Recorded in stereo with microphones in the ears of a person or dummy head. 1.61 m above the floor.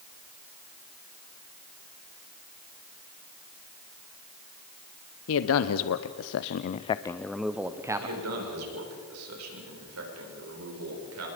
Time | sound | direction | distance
5.3 | a man speaking | 80° left | 1.0 m
8.0 | a man speaking | 80° right | 6 m